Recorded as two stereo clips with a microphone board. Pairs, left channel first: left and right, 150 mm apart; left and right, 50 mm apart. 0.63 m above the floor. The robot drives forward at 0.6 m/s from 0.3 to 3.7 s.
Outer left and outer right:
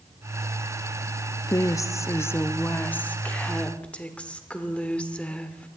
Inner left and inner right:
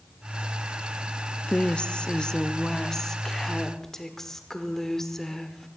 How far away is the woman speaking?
About 0.5 m.